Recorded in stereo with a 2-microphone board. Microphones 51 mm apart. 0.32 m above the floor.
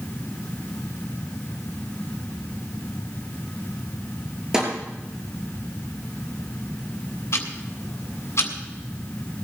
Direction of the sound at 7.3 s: 65° left (ahead or behind).